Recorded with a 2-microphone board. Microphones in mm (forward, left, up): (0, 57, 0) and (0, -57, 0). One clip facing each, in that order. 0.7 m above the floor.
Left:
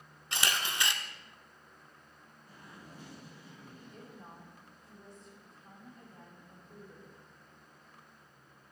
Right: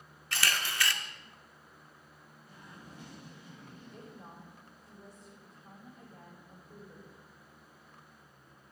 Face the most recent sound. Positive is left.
turn(degrees=-5)  # may be behind; listen again after turning